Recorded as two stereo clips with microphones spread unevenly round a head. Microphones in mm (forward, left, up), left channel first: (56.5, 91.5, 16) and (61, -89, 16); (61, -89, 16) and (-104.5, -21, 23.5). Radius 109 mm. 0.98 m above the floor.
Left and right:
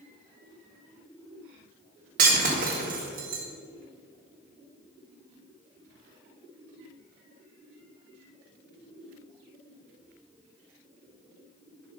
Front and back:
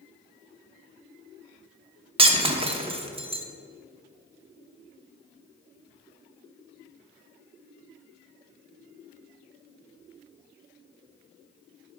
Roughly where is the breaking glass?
Behind right.